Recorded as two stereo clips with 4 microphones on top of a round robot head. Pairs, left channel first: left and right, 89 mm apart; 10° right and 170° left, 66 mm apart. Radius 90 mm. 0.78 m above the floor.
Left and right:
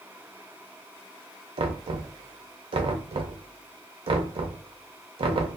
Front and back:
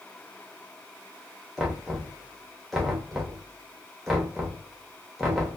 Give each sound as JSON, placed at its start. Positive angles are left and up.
{"t": 1.6, "sound": "knocking", "azimuth_deg": -100, "distance_m": 0.6}